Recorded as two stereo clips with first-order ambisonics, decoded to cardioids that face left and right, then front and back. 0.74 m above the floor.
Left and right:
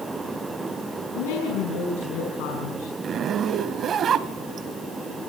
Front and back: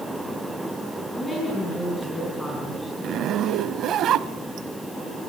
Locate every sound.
1.1 s a woman speaking: 85° left, 6 m
3.0 s a zipper: 140° right, 0.8 m